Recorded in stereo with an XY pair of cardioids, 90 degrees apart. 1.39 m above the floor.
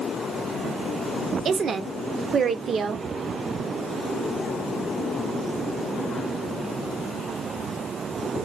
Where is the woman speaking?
55° right, 0.6 m.